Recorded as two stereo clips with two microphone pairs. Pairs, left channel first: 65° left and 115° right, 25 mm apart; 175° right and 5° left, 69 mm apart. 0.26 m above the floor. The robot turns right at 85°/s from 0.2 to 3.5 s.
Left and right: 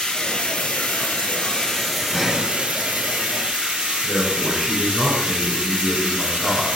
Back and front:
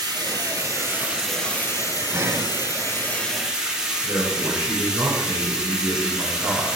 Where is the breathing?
40° right, 1.1 m; by 2.5 s 15° right, 1.1 m.